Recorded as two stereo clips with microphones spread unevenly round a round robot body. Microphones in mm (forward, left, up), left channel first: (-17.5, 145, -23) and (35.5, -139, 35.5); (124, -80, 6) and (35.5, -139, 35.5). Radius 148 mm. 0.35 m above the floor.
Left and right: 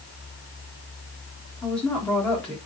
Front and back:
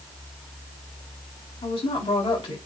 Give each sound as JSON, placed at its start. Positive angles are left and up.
{"t": 1.6, "sound": "a woman speaking", "azimuth_deg": 20, "distance_m": 4.0}